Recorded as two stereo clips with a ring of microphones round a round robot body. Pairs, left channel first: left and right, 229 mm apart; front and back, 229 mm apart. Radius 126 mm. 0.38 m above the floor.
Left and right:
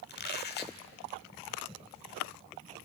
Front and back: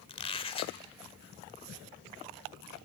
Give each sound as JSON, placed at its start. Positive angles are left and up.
{"t": 0.1, "sound": "a squeak", "azimuth_deg": 60, "distance_m": 1.1}